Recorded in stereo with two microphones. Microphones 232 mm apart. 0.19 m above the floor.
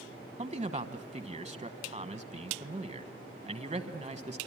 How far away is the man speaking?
About 1.1 m.